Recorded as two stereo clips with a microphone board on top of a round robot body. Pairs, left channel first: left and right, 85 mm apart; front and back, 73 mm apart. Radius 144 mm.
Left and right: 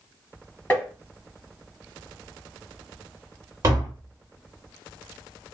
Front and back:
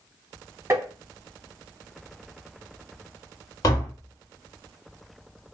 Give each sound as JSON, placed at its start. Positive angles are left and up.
{"t": 0.7, "sound": "tapping", "azimuth_deg": 145, "distance_m": 1.4}
{"t": 3.6, "sound": "tapping", "azimuth_deg": -35, "distance_m": 0.9}